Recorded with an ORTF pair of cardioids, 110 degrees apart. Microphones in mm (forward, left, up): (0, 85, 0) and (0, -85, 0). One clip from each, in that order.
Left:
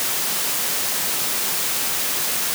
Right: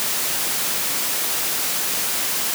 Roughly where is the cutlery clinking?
I don't hear cutlery clinking.